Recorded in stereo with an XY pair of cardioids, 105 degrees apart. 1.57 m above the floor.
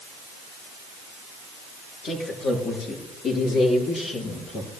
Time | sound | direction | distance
2.0 | a man speaking | 55° left | 6 m